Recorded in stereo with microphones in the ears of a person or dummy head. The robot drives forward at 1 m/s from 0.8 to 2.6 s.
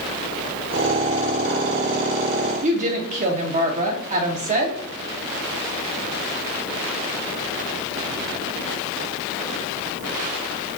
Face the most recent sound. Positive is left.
turn(degrees=-35)  # may be behind; listen again after turning